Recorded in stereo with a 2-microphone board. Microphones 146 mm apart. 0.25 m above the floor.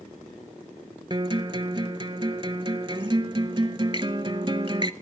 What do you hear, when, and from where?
1.1 s a guitar: 35° right (ahead or behind), 0.5 m